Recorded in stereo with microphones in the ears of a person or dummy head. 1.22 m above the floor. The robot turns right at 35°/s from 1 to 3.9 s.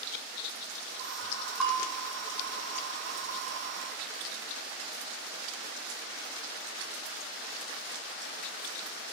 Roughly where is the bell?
Centre.